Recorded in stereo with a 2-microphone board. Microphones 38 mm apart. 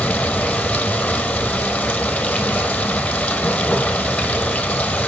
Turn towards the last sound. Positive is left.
turn(degrees=30)  # may be behind; listen again after turning